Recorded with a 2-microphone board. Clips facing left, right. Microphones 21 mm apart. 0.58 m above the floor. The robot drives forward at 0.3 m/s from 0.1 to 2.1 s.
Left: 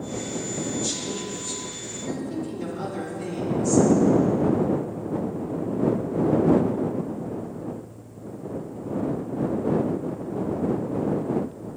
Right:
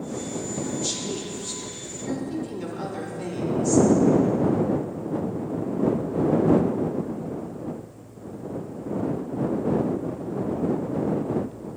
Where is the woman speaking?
30° right (ahead or behind), 1.1 m; by 3.9 s 20° right (ahead or behind), 1.4 m.